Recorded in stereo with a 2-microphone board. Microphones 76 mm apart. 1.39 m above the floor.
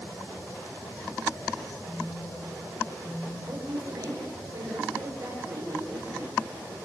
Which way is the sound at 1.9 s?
90° left.